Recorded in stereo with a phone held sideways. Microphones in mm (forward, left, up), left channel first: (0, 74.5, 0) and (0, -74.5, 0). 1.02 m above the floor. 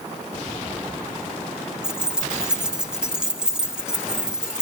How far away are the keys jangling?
About 1.4 m.